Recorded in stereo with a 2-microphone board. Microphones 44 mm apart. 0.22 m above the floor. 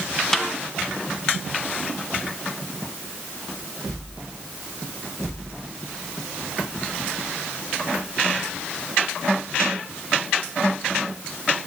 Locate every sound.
0.3 s a snare drum: 15° left (ahead or behind), 1.6 m